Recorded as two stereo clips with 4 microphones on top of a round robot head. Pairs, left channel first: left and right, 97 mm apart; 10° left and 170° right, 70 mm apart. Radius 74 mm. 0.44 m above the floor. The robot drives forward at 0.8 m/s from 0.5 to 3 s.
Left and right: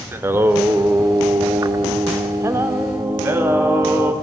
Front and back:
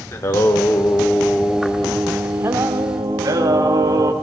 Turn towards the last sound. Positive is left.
turn(degrees=-155)